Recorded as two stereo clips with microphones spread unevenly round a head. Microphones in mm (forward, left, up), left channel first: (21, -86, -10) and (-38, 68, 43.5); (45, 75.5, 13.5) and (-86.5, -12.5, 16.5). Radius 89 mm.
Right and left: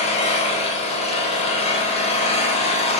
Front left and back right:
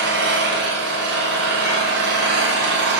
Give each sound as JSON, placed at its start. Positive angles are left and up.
{"t": 0.0, "sound": "an engine running", "azimuth_deg": -130, "distance_m": 1.3}